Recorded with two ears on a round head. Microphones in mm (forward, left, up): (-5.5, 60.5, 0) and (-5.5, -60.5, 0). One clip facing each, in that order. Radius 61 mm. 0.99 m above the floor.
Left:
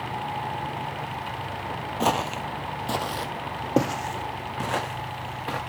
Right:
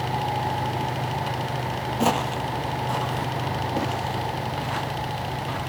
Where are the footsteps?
10° right (ahead or behind), 1.0 m; by 5.6 s 75° left (ahead or behind), 4 m.